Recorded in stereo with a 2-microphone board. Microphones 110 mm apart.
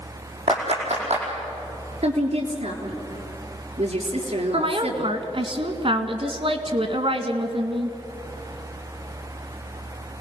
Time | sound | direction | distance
0.5 | a clap | 75° right (ahead or behind) | 5.5 m
2.0 | a woman speaking | 70° right (ahead or behind) | 4 m
4.5 | a woman speaking | 55° right (ahead or behind) | 1.7 m